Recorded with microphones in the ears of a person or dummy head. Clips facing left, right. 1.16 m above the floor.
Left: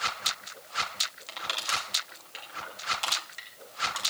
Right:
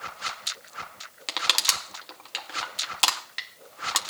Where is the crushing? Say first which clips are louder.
Right 3 dB; 70° right (ahead or behind), 1.9 m.